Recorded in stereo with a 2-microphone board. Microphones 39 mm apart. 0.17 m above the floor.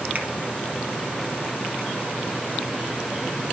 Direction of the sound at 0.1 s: 40° right (ahead or behind).